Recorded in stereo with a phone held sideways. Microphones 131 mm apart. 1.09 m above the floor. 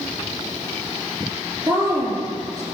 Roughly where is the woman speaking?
Right.